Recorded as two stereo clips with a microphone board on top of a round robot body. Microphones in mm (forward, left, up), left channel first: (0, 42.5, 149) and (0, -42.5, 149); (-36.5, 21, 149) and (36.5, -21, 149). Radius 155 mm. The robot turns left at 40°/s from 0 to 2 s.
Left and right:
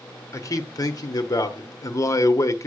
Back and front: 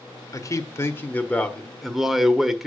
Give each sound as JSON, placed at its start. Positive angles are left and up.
{"t": 0.3, "sound": "a man speaking", "azimuth_deg": 120, "distance_m": 1.3}